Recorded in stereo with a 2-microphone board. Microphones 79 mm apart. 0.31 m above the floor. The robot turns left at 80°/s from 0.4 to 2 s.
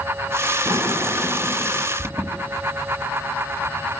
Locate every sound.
0.7 s a sliding door: 115° right, 3 m; by 1.9 s 145° left, 3 m
2.0 s an alarm: 40° right (ahead or behind), 2.5 m